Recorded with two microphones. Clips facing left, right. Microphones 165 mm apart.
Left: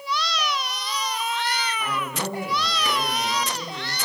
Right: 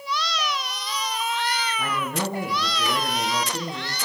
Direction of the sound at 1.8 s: 45° right (ahead or behind).